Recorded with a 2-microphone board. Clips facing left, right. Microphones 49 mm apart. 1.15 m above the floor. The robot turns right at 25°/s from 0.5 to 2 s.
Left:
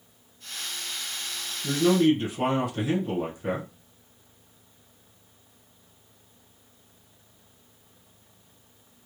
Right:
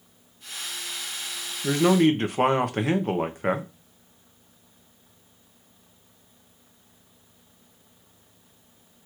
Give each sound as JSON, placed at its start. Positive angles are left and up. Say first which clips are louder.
{"t": 1.6, "sound": "a man speaking", "louder": "right 2 dB", "side_deg": -50, "distance_m": 0.9}